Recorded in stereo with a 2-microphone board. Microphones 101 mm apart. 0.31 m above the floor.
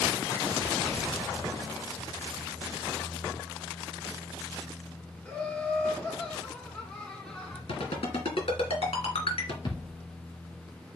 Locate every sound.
5.2 s laughter: 15° left (ahead or behind), 2.5 m
7.7 s a ringtone: 80° left, 2.5 m
9.7 s a thud: 50° left (ahead or behind), 2.0 m